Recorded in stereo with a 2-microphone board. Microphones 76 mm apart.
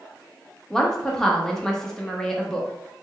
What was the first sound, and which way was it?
A woman speaking, 5° left (ahead or behind).